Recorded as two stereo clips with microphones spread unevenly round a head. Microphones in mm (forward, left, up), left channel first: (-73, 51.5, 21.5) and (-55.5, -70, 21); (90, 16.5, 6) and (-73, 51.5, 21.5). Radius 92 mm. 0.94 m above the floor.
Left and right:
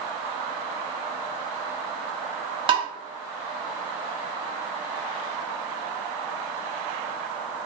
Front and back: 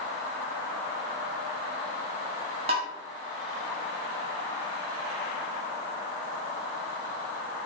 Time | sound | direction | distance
2.7 | tapping | 130° right | 0.6 m